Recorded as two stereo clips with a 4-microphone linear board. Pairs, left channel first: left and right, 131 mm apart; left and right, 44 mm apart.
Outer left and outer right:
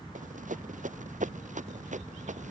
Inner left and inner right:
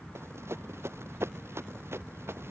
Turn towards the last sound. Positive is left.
turn(degrees=-70)  # may be behind; listen again after turning